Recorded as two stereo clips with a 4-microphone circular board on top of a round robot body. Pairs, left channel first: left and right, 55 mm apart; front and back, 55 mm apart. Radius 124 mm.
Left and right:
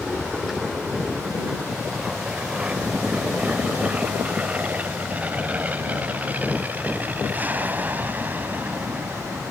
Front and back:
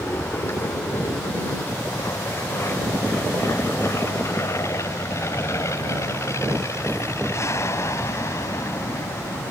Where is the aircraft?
5° right; by 9.5 s 35° right.